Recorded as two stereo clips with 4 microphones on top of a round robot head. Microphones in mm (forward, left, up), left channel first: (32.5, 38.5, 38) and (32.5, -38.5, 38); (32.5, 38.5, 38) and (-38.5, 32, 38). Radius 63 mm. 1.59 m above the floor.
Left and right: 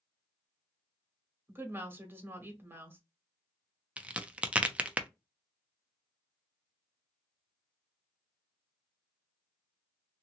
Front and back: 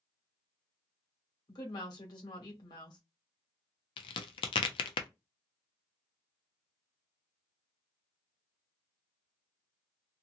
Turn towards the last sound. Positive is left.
turn(degrees=-15)